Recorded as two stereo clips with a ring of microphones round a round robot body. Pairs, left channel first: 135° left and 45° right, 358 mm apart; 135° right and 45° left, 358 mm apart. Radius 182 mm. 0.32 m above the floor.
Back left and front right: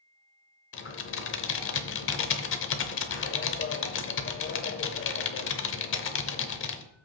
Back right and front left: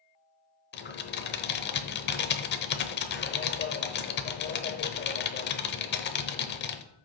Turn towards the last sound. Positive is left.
turn(degrees=175)